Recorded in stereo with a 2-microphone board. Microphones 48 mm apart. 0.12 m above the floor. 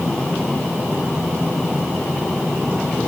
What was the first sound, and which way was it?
Only background noise.